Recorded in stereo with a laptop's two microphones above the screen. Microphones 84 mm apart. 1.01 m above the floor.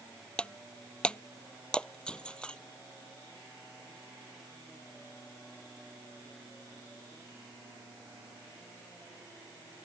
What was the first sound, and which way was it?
Breaking glass, 10° left (ahead or behind).